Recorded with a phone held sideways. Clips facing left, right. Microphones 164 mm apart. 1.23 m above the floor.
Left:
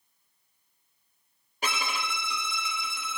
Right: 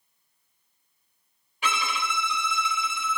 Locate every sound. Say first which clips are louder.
1.6 s a violin: right 3 dB; 40° left (ahead or behind), 0.7 m